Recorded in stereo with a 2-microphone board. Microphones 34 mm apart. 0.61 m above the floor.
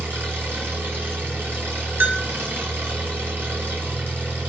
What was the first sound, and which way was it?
An engine running, 75° right (ahead or behind).